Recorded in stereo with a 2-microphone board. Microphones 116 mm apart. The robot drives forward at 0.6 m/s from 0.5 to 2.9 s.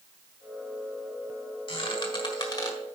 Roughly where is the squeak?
Left.